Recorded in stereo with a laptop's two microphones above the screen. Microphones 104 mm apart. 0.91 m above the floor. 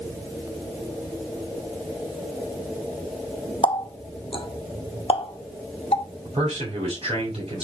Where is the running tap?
65° left (ahead or behind), 0.9 m.